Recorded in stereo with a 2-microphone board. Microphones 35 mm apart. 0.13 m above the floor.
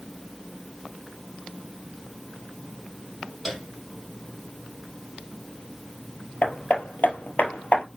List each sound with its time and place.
3.5 s a piano: 5° left (ahead or behind), 4 m
6.4 s hammering: 60° left (ahead or behind), 1.5 m